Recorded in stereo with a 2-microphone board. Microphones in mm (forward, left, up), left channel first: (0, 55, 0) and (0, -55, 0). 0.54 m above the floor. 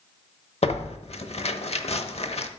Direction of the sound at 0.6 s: 70° left (ahead or behind).